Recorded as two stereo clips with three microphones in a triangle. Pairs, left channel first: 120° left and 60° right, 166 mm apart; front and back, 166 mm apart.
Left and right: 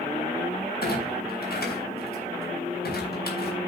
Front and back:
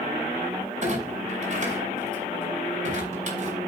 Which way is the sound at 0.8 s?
135° left.